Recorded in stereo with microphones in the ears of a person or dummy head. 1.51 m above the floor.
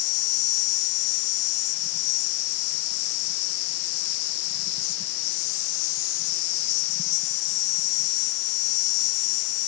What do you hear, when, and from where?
0.0 s an insect: 70° left (ahead or behind)